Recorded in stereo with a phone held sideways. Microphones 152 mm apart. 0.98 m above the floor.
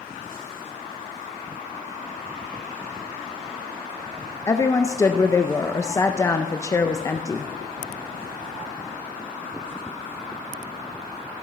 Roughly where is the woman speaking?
Left.